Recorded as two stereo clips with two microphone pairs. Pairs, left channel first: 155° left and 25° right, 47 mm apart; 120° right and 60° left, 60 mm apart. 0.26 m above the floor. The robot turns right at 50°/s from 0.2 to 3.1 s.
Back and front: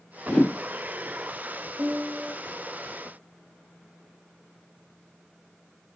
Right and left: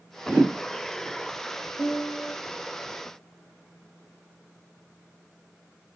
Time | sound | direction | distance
0.3 | a whoosh | 110° left | 1.1 m
1.8 | a piano | 40° right | 0.7 m